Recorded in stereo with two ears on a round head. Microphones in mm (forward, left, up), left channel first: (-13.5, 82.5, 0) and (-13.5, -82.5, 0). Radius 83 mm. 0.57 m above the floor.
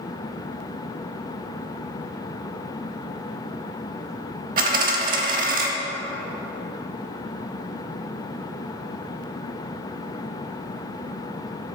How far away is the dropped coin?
About 0.7 m.